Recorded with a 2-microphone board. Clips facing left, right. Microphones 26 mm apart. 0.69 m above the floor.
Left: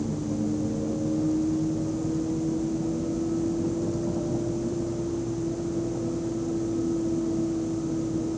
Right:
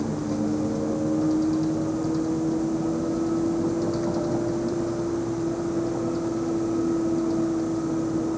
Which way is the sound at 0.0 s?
65° right (ahead or behind).